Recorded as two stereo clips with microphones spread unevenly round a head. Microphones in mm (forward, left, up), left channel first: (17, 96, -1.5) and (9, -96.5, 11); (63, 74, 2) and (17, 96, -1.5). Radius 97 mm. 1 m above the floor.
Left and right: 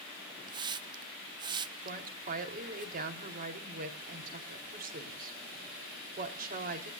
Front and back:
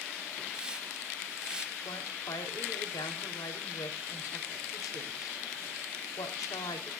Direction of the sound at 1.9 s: 45° right.